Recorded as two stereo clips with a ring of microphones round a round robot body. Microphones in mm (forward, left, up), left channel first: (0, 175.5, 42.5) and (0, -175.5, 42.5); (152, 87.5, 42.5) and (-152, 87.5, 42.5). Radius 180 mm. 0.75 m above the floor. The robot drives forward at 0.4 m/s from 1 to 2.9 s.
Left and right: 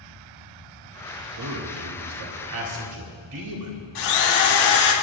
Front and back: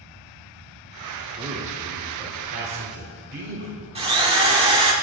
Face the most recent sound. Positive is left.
turn(degrees=110)